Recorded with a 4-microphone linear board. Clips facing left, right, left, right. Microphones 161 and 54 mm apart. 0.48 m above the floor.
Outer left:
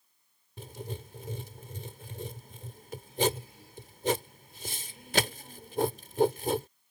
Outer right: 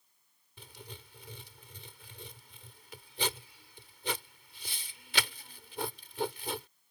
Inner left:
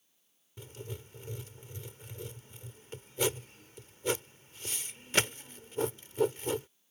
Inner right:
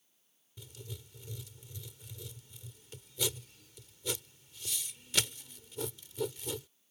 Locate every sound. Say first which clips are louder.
0.6 s writing: outer left 10 dB, inner left 5 dB; 45° left (ahead or behind)